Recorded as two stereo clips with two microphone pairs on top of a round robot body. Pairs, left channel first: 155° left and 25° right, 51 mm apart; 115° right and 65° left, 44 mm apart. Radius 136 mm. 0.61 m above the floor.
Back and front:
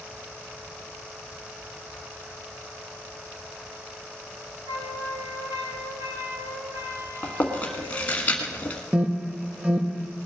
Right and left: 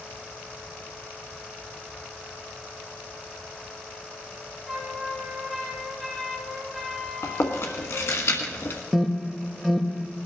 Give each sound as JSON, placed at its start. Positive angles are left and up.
{"t": 4.7, "sound": "a flute", "azimuth_deg": -30, "distance_m": 3.0}
{"t": 7.2, "sound": "chewing", "azimuth_deg": -145, "distance_m": 1.3}
{"t": 8.9, "sound": "an alarm", "azimuth_deg": -35, "distance_m": 1.3}